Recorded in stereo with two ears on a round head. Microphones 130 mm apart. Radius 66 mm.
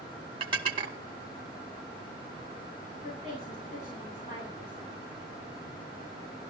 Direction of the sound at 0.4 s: 35° right (ahead or behind).